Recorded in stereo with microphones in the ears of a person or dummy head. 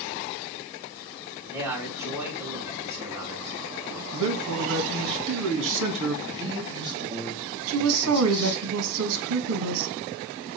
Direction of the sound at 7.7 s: 80° right.